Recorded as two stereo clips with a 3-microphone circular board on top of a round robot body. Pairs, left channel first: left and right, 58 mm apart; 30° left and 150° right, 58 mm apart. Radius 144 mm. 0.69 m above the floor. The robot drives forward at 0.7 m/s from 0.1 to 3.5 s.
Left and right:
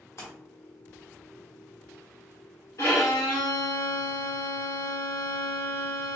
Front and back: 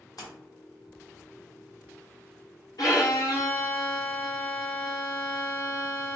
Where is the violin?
50° left, 1.3 m; by 6.2 s 70° left, 1.0 m.